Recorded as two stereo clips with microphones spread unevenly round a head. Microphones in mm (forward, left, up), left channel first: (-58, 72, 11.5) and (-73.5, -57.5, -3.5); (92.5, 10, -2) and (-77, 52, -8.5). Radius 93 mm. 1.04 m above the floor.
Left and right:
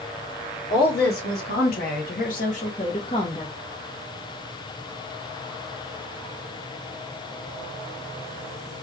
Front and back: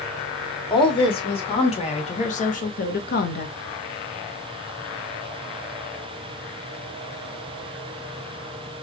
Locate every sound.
0.7 s a woman speaking: 50° left, 2 m; by 3.5 s 10° left, 0.9 m